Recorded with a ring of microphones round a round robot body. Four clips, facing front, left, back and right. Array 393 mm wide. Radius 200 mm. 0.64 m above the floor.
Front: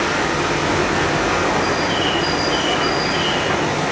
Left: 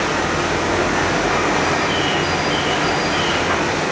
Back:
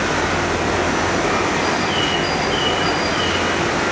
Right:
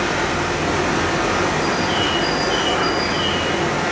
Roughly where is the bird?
Ahead right.